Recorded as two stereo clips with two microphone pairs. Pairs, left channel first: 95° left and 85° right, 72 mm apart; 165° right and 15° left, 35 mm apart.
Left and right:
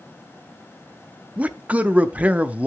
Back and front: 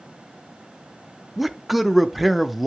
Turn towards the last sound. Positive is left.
turn(degrees=-70)